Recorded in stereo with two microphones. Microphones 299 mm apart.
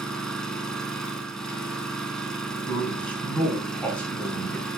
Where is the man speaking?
5° left (ahead or behind), 2 m.